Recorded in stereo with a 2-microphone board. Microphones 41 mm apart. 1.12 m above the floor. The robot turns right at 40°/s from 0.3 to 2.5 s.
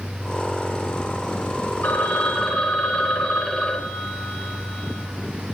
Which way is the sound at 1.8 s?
50° left (ahead or behind).